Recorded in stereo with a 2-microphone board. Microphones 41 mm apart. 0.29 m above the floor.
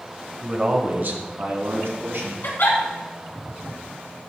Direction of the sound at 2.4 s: 60° left (ahead or behind).